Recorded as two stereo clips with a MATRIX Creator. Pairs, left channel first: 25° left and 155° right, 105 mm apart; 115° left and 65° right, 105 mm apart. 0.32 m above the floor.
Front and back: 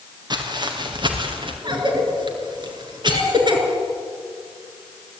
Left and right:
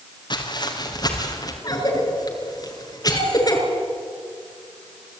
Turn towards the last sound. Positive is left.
turn(degrees=160)